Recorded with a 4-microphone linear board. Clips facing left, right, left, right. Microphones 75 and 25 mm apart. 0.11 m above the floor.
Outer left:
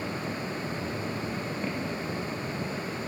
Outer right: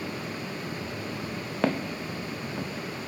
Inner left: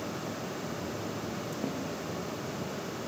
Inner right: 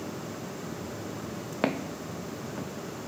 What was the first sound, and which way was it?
Footsteps, 85° right.